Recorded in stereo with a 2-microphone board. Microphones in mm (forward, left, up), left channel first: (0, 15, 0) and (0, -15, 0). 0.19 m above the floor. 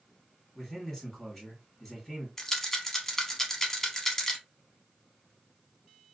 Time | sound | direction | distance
0.6 | a man speaking | 20° left (ahead or behind) | 1.5 m
2.4 | a rattle | 15° left (ahead or behind) | 0.7 m